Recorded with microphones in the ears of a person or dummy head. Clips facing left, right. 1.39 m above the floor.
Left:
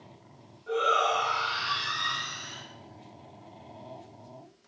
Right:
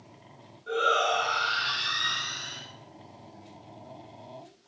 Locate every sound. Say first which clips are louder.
0.7 s a shout: even; 20° right (ahead or behind), 10 m